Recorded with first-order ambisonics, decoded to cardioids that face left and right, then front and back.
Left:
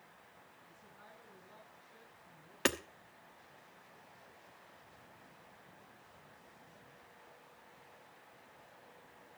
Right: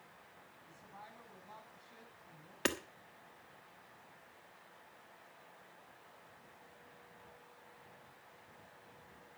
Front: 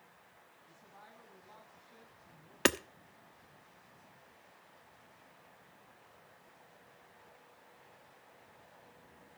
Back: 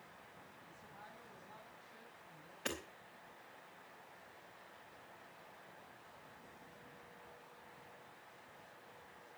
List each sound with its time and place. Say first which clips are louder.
0.7 s a woman speaking: right 6 dB, even; 80° right, 7 m
2.6 s hammering: left 3 dB, front 13 dB; 10° left, 1.0 m